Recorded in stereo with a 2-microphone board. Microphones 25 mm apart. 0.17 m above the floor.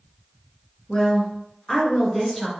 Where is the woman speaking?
30° left (ahead or behind), 1.9 m; by 2.5 s 5° left (ahead or behind), 2.0 m.